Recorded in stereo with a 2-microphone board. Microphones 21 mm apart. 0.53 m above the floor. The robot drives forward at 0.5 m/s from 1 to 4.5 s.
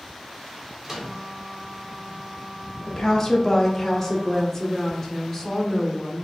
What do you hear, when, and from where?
0.8 s a microwave: 20° right (ahead or behind), 1.2 m
2.9 s a woman speaking: 25° left (ahead or behind), 0.8 m; by 6.2 s 15° left (ahead or behind), 1.2 m